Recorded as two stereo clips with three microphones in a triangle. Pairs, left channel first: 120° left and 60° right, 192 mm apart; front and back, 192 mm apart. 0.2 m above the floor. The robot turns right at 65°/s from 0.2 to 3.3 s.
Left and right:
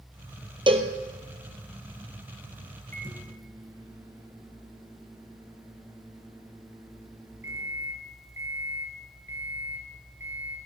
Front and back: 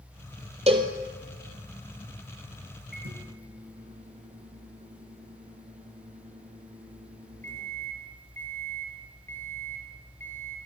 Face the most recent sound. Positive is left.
turn(degrees=-135)